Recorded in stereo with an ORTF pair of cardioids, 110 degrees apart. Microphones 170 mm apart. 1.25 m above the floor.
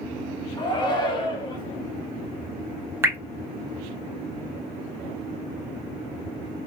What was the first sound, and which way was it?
A shout, 25° left.